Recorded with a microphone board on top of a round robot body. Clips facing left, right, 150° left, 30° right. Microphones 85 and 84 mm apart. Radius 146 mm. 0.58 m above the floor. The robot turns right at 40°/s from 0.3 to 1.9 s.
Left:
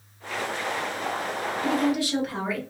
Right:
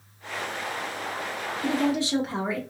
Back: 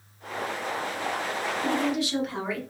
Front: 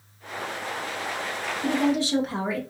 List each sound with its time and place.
1.6 s a woman speaking: 65° right, 1.2 m; by 2.6 s 50° right, 1.2 m